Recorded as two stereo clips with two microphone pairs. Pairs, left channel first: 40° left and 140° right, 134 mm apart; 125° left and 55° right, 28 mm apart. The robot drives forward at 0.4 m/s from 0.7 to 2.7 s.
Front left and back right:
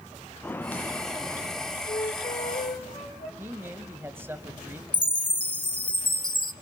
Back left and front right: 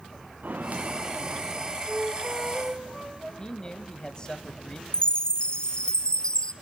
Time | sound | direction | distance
0.4 | footsteps | 35° right | 1.1 m
1.9 | a flute | 10° left | 4.5 m
3.4 | a man speaking | 160° left | 1.1 m
4.9 | a chime | 75° left | 0.7 m